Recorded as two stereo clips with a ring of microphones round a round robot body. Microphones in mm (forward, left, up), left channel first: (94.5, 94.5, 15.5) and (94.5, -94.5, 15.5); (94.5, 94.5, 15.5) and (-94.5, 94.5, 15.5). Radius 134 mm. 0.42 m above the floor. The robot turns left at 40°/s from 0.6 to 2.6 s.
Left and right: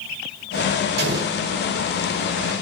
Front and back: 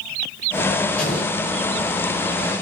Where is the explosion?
85° right, 1.0 m; by 1.4 s 100° right, 1.0 m.